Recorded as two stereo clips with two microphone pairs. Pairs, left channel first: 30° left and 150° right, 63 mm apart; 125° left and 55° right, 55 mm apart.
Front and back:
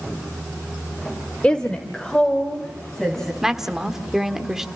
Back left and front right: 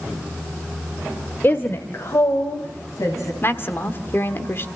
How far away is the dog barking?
I don't hear a dog barking.